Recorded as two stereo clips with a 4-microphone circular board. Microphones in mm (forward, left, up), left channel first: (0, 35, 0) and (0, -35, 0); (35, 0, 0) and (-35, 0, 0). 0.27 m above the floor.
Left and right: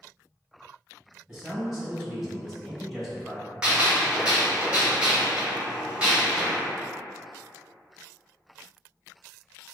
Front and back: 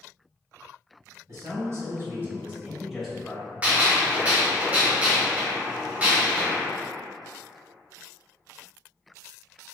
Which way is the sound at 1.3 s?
170° right.